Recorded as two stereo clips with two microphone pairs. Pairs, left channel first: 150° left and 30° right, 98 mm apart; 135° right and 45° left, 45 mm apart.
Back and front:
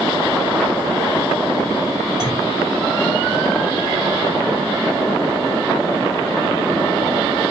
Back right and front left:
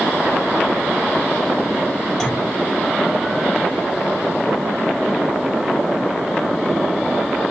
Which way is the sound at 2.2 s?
60° right.